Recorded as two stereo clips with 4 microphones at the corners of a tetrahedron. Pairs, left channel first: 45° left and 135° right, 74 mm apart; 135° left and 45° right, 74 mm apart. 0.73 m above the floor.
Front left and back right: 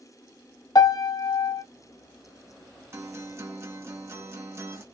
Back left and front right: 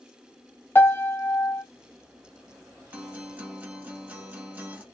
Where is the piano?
80° left, 0.5 m.